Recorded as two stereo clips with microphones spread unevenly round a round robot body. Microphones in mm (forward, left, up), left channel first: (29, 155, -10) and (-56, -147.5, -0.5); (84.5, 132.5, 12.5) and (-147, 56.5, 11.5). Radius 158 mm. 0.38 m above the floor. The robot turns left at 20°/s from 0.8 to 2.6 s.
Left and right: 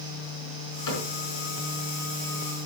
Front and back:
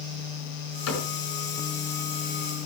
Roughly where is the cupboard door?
Ahead left.